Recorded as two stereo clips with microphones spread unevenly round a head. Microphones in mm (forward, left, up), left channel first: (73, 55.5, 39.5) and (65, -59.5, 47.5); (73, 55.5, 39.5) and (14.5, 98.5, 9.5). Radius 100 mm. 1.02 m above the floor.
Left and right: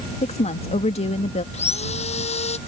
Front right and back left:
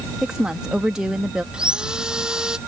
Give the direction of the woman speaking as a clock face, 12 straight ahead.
10 o'clock.